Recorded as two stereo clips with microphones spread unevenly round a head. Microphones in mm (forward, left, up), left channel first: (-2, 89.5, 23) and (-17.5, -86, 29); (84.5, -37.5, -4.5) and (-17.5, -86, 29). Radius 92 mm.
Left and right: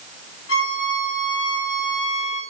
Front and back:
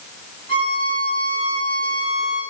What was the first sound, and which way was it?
A violin, 90° left.